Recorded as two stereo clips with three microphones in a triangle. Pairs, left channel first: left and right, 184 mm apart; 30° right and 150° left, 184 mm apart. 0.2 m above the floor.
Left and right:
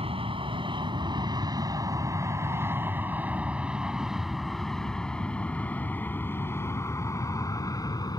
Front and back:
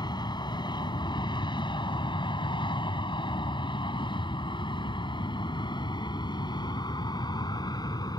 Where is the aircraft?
75° right; by 8.2 s 30° left.